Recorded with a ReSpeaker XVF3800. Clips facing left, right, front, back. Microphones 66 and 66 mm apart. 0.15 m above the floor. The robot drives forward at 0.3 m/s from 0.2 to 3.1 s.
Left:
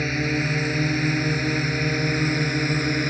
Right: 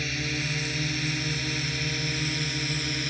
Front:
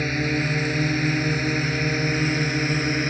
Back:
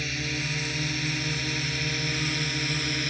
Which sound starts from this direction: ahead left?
A drone, at 0.0 s.